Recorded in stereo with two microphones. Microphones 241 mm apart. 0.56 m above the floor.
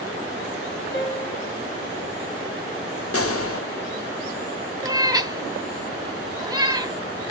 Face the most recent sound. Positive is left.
turn(degrees=-15)  # may be behind; listen again after turning